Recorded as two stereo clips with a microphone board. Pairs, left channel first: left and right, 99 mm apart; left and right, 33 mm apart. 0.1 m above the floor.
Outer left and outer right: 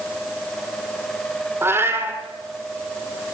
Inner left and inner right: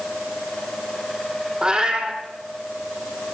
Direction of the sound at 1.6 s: 25° right (ahead or behind).